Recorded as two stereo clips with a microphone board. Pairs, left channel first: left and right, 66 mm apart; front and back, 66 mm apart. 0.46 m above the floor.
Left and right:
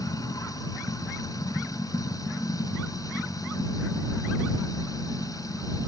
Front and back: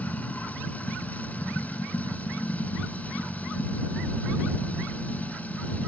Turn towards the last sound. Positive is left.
turn(degrees=65)